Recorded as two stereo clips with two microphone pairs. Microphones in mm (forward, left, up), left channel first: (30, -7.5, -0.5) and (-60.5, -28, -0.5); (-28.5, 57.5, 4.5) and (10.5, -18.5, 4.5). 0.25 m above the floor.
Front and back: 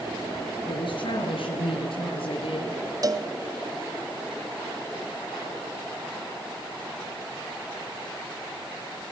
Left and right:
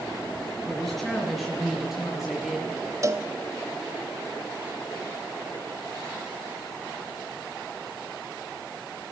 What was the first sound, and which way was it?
A woman speaking, 30° left.